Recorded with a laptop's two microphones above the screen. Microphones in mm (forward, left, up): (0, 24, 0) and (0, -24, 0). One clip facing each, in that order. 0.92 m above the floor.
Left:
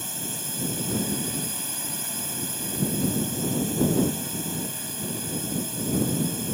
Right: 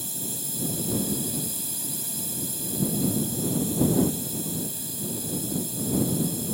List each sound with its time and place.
0.0 s a drone: 55° left (ahead or behind)